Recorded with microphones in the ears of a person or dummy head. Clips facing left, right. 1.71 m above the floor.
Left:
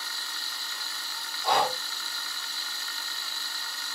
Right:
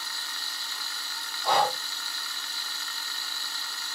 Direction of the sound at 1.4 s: 25° left (ahead or behind).